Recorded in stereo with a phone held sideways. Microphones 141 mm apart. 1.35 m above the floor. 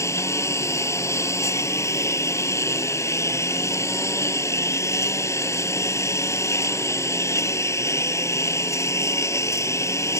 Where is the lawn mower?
20° left (ahead or behind).